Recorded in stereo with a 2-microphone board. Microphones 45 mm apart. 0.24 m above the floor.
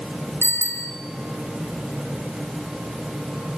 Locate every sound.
0.4 s a bicycle bell: 70° left (ahead or behind), 3 m